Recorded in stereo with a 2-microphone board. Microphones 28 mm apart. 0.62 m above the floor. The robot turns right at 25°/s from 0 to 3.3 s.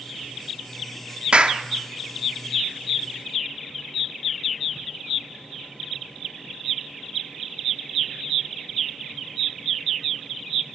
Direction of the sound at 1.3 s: 40° right (ahead or behind).